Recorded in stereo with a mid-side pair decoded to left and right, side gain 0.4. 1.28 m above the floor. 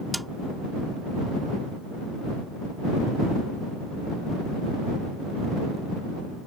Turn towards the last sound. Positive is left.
turn(degrees=-5)